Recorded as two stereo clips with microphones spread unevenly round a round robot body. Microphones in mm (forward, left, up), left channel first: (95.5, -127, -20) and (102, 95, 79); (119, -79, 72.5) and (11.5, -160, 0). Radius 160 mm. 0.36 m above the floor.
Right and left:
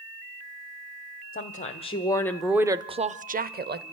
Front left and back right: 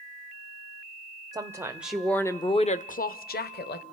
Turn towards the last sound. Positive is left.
turn(degrees=30)